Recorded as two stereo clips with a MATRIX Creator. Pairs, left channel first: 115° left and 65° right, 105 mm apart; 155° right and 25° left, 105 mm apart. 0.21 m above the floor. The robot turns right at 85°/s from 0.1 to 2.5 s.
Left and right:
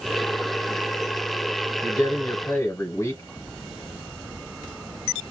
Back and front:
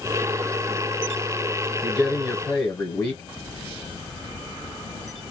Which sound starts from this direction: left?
A man speaking, at 1.8 s.